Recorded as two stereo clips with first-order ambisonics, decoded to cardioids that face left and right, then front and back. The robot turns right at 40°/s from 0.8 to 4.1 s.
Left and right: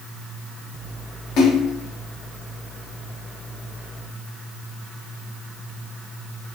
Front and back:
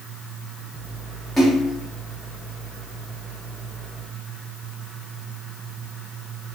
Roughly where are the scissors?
No scissors in this recording.